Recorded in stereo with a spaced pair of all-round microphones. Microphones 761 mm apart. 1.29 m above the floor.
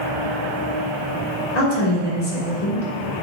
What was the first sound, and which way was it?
A woman speaking, 60° left (ahead or behind).